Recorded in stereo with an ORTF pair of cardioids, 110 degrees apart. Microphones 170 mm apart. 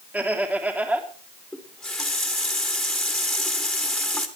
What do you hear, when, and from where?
0.1 s laughter: 10° right, 3 m
1.5 s a running tap: 5° left, 2.5 m